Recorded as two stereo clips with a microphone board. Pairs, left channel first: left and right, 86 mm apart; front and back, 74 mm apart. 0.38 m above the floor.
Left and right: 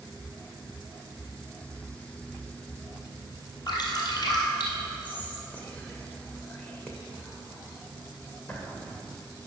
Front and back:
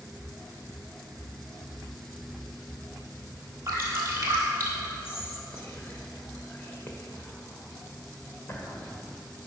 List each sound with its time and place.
3.7 s dripping: 125° left, 2 m
5.0 s whispering: 30° left, 1.2 m